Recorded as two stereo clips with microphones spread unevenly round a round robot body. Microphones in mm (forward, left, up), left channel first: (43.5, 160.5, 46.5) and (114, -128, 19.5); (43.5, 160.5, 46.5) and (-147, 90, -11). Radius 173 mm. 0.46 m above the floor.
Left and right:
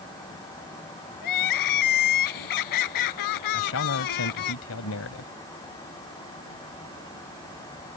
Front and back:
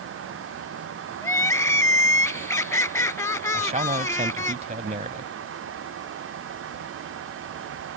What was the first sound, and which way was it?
Crying, 95° left.